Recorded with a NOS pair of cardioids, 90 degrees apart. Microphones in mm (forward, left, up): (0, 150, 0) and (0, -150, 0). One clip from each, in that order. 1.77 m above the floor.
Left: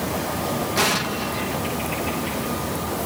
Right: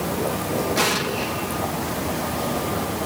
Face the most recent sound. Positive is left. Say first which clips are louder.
# left 2 dB
turn(degrees=5)